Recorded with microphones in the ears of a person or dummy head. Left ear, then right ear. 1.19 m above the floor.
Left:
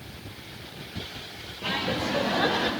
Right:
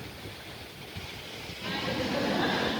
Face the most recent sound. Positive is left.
turn(degrees=25)  # may be behind; listen again after turning